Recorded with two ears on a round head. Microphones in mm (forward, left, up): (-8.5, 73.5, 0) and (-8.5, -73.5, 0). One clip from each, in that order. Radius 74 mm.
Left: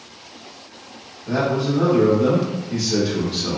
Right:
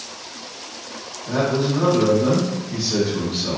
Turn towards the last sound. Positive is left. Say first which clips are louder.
# even
turn(degrees=15)  # may be behind; listen again after turning